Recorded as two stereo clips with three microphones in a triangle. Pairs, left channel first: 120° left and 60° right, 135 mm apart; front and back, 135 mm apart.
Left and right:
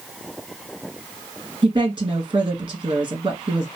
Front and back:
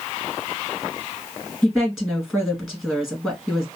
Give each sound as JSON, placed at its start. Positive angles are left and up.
{"t": 1.6, "sound": "a woman speaking", "azimuth_deg": -95, "distance_m": 1.9}